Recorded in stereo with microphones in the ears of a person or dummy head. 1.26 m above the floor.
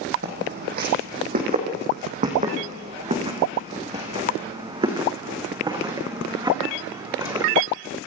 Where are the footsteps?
50° right (ahead or behind), 4 m; by 7.5 s 15° right (ahead or behind), 6 m.